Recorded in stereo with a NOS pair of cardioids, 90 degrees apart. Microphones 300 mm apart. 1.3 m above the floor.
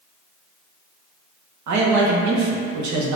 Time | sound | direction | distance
1.7 | a man speaking | 70° right | 1.1 m